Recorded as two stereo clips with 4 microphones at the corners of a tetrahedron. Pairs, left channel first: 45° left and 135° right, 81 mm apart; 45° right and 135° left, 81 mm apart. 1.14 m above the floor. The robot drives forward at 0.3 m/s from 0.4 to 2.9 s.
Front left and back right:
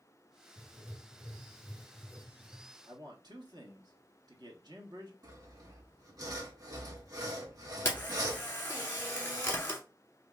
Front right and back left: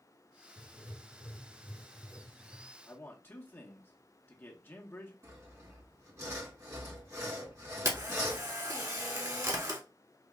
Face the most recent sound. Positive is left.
turn(degrees=100)